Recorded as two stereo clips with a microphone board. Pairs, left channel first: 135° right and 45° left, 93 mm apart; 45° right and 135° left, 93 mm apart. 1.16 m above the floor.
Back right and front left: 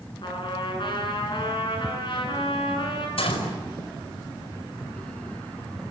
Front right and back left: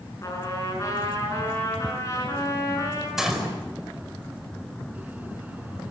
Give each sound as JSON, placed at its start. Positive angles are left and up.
{"t": 0.2, "sound": "a trumpet", "azimuth_deg": -100, "distance_m": 8.0}
{"t": 3.2, "sound": "a gunshot", "azimuth_deg": -140, "distance_m": 5.0}